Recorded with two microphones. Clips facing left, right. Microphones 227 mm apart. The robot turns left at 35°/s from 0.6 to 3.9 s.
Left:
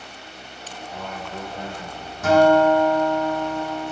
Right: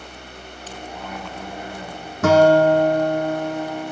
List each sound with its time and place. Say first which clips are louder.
0.9 s a man speaking: left 2 dB; 120° left, 6 m; by 2.1 s 75° left, 6 m
2.2 s a guitar: right 2 dB; 100° right, 2 m; by 3.9 s 155° right, 2 m